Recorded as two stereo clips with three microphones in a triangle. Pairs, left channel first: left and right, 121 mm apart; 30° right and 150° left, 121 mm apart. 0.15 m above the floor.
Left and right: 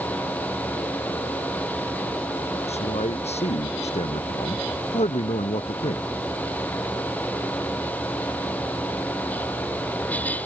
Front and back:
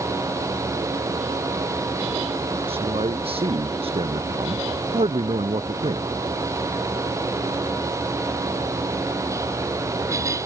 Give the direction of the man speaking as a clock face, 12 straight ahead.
8 o'clock.